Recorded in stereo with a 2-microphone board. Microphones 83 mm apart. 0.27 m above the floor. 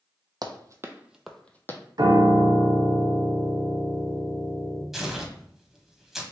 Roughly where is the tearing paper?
Centre.